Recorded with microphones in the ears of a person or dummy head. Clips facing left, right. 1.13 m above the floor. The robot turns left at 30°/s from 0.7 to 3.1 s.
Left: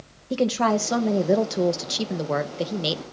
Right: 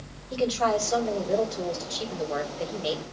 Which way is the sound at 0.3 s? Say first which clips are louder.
Left 3 dB; 120° left.